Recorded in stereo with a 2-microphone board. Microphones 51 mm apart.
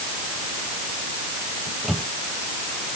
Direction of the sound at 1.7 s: 5° right (ahead or behind).